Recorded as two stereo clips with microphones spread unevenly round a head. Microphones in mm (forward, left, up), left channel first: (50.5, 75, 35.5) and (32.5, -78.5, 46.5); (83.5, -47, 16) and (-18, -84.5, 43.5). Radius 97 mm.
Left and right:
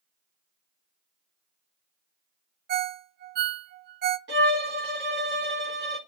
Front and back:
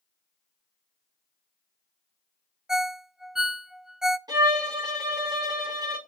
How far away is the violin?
About 3.5 m.